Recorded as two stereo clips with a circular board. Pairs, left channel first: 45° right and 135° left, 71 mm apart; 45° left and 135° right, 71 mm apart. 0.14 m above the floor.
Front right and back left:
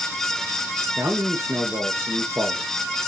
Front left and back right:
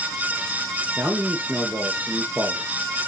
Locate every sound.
1.0 s a man speaking: 165° left, 1.8 m